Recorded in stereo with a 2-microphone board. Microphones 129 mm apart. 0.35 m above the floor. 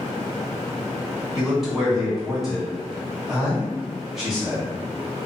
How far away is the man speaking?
About 1.3 m.